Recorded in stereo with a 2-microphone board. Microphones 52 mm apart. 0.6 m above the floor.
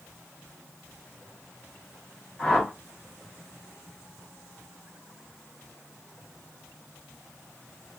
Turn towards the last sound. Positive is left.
turn(degrees=20)  # may be behind; listen again after turning